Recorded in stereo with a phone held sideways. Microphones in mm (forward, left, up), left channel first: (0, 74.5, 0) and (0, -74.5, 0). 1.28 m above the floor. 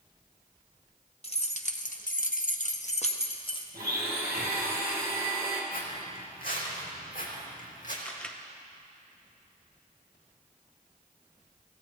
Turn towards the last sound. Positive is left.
turn(degrees=10)  # may be behind; listen again after turning